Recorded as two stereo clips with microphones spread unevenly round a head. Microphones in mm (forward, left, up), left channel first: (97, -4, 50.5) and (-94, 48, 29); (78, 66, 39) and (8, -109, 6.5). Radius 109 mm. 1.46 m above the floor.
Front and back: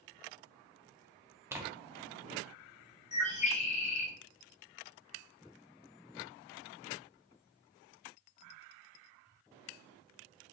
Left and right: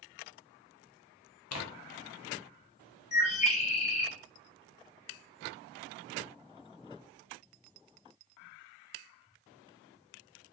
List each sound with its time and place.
1.5 s tearing paper: 85° left, 0.7 m
3.1 s a bird: 30° left, 0.9 m